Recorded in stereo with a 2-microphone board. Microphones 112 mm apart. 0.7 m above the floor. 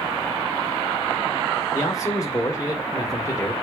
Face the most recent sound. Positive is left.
turn(degrees=30)  # may be behind; listen again after turning